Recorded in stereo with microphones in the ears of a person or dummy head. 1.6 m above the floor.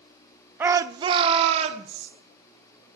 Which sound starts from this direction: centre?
A shout, at 0.6 s.